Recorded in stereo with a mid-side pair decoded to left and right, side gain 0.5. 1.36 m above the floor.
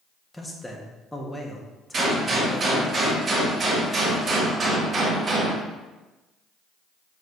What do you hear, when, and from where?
0.3 s a man speaking: 10° left, 1.5 m
1.9 s a gunshot: 35° right, 2.5 m